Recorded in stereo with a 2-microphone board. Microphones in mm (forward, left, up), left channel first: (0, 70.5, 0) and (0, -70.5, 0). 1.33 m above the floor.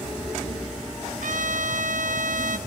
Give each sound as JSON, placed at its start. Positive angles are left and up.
{"t": 1.2, "sound": "a trumpet", "side_deg": -75, "distance_m": 3.0}